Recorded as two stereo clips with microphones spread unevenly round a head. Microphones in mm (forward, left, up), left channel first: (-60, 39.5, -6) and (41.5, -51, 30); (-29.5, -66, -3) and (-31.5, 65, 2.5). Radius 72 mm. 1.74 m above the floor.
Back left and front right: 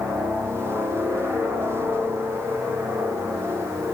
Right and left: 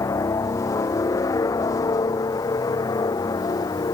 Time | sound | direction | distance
0.0 | a helicopter | 125° right | ?